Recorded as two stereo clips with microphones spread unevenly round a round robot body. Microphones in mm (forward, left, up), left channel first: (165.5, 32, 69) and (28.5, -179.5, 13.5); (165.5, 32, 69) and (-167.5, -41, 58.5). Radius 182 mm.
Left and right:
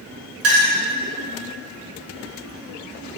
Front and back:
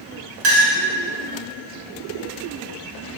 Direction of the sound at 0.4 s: 120° right.